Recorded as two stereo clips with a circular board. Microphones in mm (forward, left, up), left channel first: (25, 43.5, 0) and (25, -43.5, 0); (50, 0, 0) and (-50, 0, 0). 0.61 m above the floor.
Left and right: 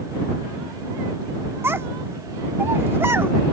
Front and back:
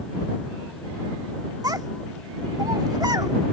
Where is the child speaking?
140° right.